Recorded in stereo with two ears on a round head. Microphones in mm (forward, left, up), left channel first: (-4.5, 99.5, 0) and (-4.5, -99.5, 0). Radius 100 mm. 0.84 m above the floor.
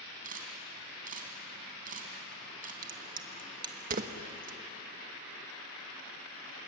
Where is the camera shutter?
40° right (ahead or behind), 3.5 m.